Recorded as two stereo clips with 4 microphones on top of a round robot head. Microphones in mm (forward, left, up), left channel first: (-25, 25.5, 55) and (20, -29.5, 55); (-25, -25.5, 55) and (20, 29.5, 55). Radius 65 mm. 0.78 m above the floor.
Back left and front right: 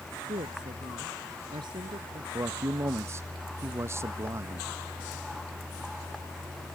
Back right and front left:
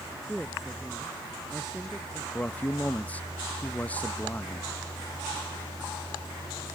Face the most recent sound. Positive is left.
turn(degrees=-70)